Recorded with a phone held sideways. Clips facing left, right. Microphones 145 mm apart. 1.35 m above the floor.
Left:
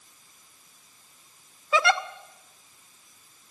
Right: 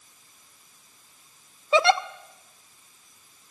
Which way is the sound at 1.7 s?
25° right (ahead or behind).